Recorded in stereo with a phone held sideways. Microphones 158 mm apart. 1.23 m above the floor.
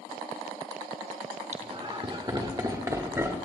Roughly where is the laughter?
Right.